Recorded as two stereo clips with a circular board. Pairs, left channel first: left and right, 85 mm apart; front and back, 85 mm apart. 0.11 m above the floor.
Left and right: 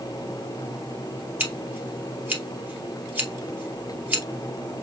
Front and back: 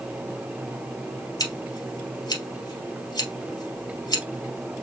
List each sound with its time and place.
1.4 s scissors: 25° right, 2 m